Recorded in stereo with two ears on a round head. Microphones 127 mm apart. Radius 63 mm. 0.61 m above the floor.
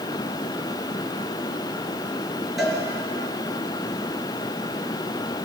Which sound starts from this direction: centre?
A cowbell, at 2.6 s.